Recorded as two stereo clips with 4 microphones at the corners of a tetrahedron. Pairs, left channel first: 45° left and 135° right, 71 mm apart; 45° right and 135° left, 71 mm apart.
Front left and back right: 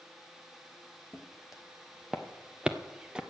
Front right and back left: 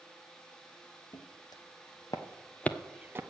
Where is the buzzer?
No buzzer in this recording.